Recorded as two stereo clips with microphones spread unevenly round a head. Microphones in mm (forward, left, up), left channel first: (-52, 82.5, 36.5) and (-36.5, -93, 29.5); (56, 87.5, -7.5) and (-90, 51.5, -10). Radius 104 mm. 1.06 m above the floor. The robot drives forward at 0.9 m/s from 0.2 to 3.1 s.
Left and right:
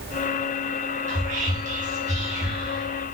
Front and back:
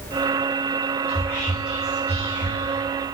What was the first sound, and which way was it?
Whispering, 50° right.